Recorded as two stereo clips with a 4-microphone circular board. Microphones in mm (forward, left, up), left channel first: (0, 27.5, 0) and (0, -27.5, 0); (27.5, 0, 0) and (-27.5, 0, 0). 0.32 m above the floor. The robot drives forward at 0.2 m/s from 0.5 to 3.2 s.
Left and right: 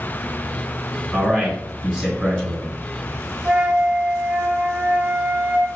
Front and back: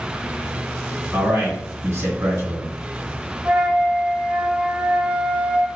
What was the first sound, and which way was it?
A man speaking, 175° left.